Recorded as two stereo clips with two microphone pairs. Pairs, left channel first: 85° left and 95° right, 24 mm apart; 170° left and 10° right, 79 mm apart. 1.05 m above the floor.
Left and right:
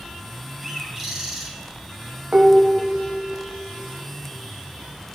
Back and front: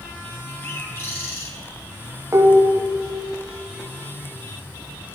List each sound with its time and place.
0.6 s a bird: 165° right, 1.0 m
2.3 s dishes clattering: 60° right, 0.6 m